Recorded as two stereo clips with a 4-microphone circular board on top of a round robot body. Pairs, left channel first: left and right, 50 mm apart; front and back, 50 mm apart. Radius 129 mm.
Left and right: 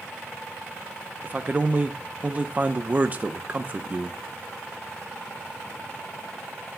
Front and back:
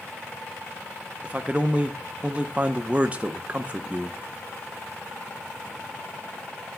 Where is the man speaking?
130° right, 0.8 m.